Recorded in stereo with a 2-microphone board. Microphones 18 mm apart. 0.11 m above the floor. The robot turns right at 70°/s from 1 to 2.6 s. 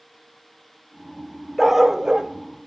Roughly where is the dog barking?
Behind.